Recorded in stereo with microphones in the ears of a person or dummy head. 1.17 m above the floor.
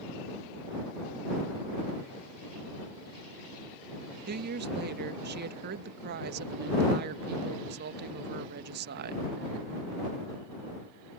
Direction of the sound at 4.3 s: 50° right (ahead or behind).